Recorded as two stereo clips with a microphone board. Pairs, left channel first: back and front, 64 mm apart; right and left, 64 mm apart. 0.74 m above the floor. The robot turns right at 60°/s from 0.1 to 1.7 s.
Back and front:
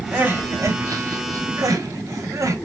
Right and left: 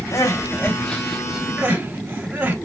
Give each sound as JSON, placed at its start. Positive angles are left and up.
{"t": 0.1, "sound": "crying", "azimuth_deg": -60, "distance_m": 1.0}